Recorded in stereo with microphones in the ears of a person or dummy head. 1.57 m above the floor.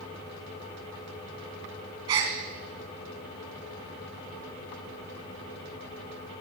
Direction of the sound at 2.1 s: 20° right (ahead or behind).